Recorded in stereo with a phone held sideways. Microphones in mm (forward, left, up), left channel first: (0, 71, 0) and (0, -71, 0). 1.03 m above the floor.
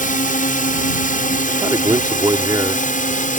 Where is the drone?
70° left (ahead or behind); by 3.4 s 65° left (ahead or behind).